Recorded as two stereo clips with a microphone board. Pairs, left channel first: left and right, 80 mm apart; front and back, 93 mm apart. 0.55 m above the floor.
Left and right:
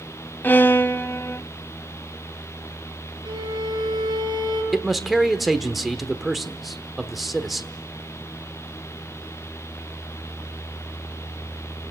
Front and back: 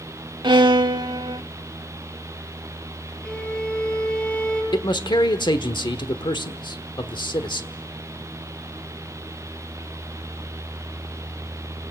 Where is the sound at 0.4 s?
150° left, 0.8 m.